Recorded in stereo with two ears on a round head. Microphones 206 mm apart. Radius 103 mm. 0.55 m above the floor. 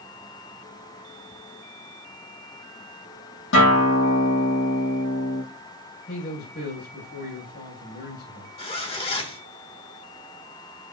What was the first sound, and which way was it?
A guitar, 55° left (ahead or behind).